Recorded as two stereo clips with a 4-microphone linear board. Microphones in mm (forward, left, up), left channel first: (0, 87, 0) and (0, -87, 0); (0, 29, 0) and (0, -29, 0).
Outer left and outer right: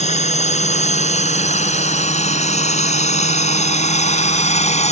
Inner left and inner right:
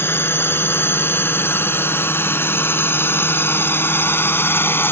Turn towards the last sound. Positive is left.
turn(degrees=40)  # may be behind; listen again after turning